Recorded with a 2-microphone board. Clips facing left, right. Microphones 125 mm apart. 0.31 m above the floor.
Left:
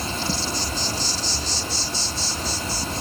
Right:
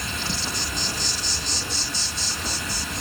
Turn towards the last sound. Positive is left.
turn(degrees=35)  # may be behind; listen again after turning